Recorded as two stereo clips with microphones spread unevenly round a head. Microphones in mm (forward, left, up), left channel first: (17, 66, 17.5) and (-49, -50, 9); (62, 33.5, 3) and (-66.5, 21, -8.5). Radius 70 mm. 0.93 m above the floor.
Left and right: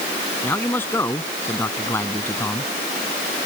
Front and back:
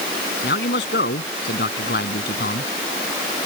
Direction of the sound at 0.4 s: 15° right.